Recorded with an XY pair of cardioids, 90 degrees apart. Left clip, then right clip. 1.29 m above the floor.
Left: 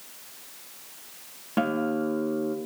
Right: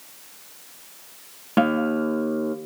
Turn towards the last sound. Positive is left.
turn(degrees=-50)